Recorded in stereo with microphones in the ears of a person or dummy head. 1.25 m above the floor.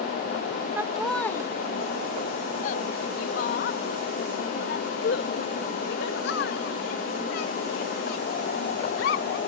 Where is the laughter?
10° right (ahead or behind); by 9.4 s 70° left (ahead or behind).